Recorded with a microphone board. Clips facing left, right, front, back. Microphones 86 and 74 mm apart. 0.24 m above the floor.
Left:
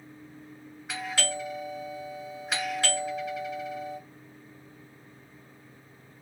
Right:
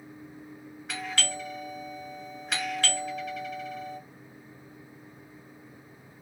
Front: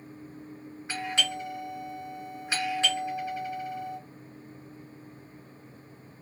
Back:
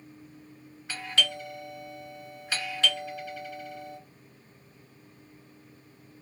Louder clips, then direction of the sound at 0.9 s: Left 1 dB, even; 10° left.